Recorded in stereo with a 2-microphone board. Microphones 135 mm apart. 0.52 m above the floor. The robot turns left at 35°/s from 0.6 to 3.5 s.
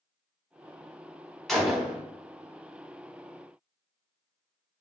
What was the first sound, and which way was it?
A gunshot, 5° left (ahead or behind).